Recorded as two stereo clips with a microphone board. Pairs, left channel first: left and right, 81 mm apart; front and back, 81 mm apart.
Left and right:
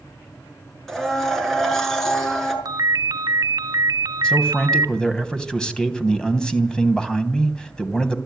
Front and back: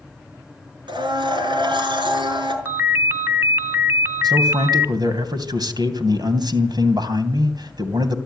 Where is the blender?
175° left, 5 m.